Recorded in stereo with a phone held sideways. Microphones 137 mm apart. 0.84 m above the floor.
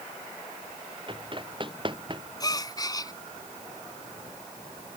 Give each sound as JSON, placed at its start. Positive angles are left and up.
{"t": 1.1, "sound": "running footsteps", "side_deg": -35}
{"t": 2.4, "sound": "a gasp", "side_deg": 30}